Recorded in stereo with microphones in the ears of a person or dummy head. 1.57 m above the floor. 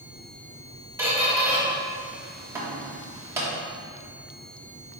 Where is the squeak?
15° right (ahead or behind), 1.4 m.